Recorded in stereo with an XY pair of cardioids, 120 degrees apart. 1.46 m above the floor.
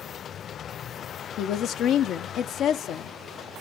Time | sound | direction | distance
1.4 | a woman speaking | 65° left | 0.7 m